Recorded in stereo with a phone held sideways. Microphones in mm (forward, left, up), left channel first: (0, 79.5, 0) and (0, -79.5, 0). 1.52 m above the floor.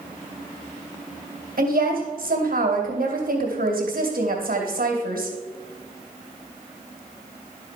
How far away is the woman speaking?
About 2.5 m.